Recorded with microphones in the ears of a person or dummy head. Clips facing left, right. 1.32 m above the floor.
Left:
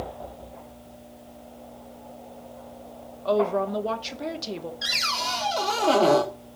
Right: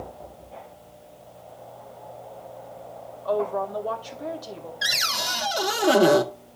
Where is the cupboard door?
20° right (ahead or behind), 1.1 m.